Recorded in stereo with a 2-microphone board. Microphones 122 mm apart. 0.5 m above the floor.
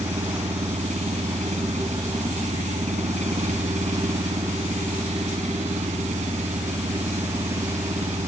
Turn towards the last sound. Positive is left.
turn(degrees=-80)